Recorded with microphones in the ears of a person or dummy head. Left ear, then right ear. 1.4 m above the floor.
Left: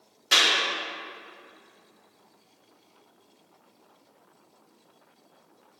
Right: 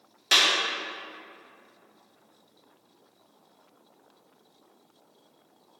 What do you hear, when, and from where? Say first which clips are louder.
0.3 s a clap: left 1 dB; 30° right (ahead or behind), 3 m